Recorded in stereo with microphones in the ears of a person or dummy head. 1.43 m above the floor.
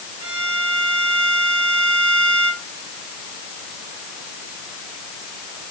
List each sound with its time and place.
0.2 s a violin: 25° right (ahead or behind), 5 m